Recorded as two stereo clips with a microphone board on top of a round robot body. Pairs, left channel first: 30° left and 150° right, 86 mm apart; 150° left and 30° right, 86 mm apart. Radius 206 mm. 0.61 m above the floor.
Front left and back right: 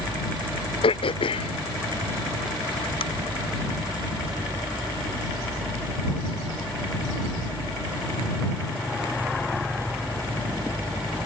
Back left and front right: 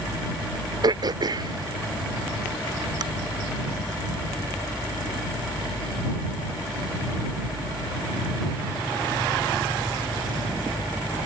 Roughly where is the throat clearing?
Ahead.